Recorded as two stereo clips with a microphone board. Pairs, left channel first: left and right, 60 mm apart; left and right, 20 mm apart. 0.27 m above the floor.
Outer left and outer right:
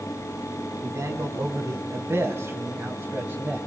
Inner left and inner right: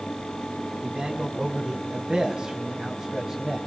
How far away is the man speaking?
About 2 m.